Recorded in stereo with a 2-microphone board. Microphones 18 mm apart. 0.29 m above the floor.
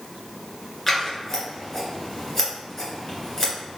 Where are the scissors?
15° left (ahead or behind), 1.8 m.